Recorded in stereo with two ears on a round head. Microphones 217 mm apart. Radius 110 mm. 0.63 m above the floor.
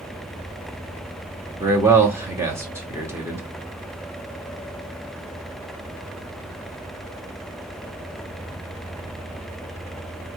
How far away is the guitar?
I don't hear a guitar.